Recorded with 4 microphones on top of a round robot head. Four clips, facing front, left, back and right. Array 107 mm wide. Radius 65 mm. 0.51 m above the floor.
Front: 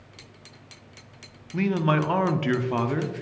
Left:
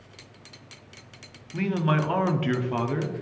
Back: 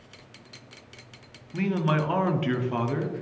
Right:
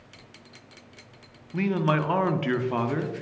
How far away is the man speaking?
About 0.7 m.